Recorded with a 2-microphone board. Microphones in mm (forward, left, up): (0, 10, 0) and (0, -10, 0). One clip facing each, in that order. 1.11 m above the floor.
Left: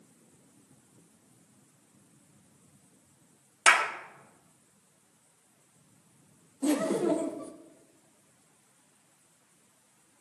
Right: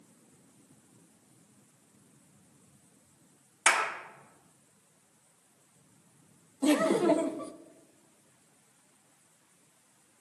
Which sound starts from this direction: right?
Laughter, at 6.6 s.